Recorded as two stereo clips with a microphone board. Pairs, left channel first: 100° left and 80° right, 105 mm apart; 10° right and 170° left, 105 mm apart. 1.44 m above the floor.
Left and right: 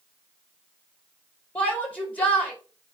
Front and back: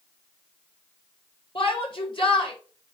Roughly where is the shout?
Ahead left.